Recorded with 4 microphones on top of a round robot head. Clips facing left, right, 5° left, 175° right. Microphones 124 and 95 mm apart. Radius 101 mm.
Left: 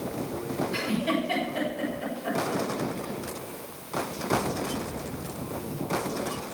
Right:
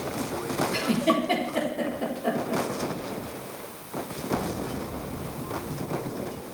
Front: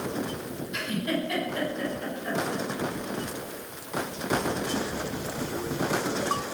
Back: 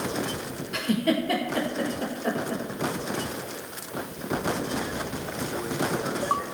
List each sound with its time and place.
0.7 s a giggle: 140° right, 4.5 m